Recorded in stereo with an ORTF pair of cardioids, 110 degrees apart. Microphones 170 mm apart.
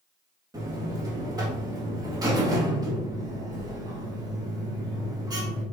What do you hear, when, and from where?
0.5 s a buzzer: 20° right, 2.5 m